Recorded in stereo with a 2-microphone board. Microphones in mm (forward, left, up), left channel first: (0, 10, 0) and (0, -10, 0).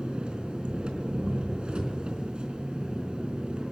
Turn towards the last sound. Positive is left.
turn(degrees=-60)  # may be behind; listen again after turning